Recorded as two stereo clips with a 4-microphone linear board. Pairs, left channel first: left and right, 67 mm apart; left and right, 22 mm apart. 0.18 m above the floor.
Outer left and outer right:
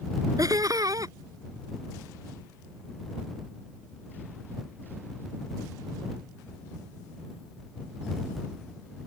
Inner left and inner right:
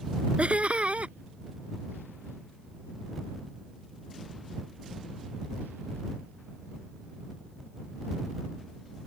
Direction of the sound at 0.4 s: 60° right (ahead or behind).